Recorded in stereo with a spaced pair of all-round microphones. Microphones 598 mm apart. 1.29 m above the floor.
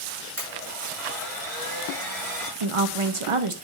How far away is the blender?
About 6 m.